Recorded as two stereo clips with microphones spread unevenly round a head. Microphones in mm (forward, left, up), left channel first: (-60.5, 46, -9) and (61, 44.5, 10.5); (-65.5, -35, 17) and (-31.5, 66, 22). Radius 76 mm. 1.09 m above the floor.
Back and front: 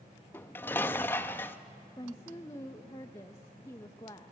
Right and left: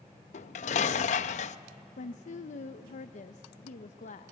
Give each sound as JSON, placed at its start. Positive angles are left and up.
{"t": 0.3, "sound": "dishes clattering", "azimuth_deg": -100, "distance_m": 0.5}
{"t": 2.0, "sound": "a woman speaking", "azimuth_deg": -115, "distance_m": 0.7}